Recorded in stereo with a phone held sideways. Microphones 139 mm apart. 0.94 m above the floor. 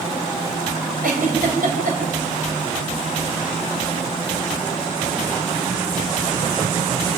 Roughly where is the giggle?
Right.